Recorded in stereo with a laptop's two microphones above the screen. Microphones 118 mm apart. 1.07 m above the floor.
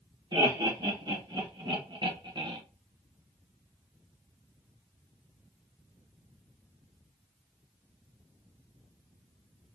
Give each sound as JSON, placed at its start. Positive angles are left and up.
{"t": 0.3, "sound": "laughter", "side_deg": -40, "distance_m": 2.0}